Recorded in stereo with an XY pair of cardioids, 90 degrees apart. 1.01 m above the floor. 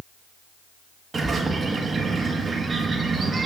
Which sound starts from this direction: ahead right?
A bird, at 1.1 s.